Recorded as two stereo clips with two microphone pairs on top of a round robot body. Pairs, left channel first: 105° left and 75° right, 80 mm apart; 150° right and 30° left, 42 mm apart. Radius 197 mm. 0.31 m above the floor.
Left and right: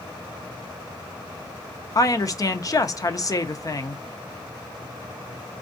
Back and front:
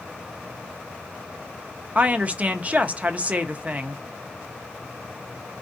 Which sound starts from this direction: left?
A woman speaking, at 1.9 s.